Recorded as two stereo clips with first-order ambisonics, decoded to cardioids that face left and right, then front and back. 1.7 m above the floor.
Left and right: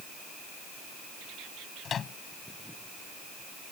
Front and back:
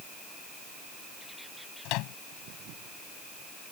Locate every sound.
1.9 s a microwave: 25° left